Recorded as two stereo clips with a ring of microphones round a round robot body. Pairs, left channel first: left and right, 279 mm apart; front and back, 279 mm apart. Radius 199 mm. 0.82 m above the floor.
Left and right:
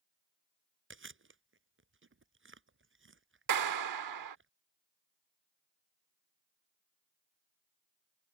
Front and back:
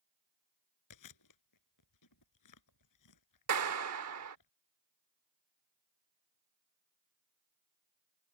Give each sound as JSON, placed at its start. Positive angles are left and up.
{"t": 0.9, "sound": "chewing", "azimuth_deg": -45}
{"t": 3.5, "sound": "a clap", "azimuth_deg": -125}